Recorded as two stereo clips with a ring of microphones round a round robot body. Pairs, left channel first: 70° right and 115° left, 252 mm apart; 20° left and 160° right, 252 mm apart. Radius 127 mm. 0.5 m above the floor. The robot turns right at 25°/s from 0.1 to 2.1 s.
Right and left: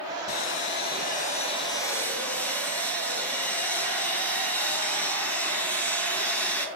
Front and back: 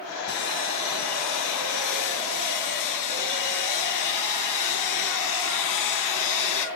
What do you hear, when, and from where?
0.3 s sawing: 30° right, 3.5 m; by 6.7 s 15° left, 3.5 m